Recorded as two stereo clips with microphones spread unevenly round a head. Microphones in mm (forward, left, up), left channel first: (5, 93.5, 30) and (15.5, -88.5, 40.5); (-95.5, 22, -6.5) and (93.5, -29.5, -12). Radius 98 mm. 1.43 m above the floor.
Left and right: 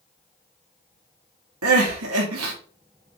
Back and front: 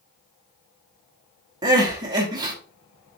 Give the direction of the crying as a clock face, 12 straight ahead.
3 o'clock.